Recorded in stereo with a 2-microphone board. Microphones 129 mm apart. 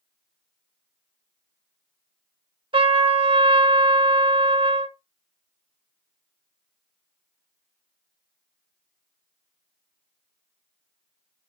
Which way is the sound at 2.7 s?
40° right (ahead or behind).